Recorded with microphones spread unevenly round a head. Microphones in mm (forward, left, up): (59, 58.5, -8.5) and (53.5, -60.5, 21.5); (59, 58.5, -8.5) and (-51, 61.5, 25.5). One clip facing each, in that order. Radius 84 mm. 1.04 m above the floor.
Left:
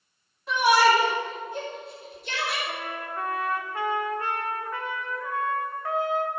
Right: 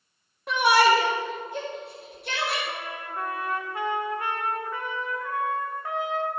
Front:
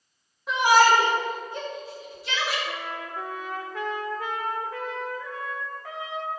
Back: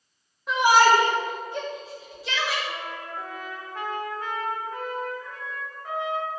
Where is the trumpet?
25° right, 1.5 m.